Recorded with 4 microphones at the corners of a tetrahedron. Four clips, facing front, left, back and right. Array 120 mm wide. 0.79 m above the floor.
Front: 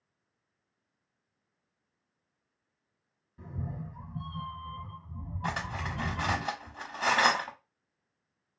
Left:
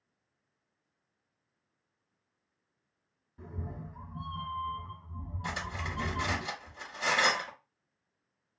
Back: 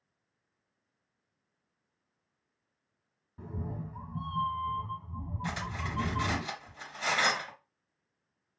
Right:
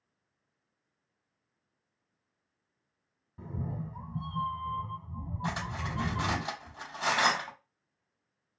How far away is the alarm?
No alarm in this recording.